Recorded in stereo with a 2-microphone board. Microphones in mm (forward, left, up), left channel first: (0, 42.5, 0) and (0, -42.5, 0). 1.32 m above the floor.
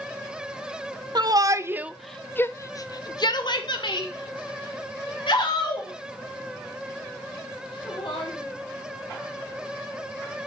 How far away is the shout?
About 0.7 m.